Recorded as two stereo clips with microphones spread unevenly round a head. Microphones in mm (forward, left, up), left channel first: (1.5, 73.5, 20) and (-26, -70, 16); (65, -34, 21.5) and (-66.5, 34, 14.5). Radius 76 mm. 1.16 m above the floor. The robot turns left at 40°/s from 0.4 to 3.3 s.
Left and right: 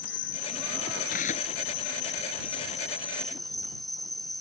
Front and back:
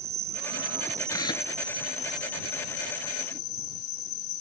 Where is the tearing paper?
45° left; by 1.5 s 25° left.